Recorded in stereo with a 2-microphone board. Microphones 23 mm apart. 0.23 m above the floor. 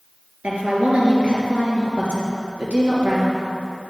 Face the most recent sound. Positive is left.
turn(degrees=-70)  # may be behind; listen again after turning